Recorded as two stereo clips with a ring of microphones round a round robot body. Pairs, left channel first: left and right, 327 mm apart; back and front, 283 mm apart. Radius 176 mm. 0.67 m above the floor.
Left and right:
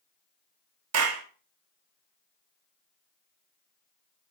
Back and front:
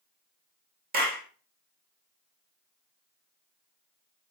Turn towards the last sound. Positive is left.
turn(degrees=-55)